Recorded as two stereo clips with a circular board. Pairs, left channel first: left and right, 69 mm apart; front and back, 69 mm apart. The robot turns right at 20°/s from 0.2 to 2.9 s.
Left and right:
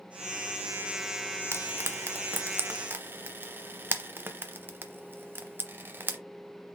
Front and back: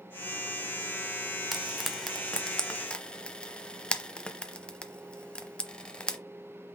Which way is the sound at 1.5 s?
90° right.